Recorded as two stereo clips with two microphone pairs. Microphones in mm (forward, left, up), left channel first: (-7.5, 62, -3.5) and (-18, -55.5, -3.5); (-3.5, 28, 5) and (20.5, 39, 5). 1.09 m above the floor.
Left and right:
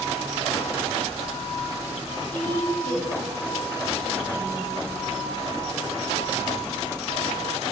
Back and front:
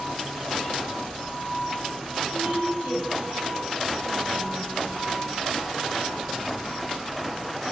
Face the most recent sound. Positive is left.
turn(degrees=90)